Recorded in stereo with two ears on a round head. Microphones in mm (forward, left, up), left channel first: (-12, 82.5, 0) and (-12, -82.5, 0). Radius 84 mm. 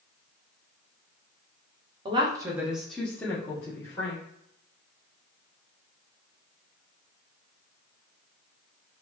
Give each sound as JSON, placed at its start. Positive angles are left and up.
{"t": 2.0, "sound": "a woman speaking", "side_deg": -25, "distance_m": 0.6}